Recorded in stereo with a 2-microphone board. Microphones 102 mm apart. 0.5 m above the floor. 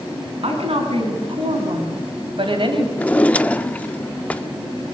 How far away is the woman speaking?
About 4 m.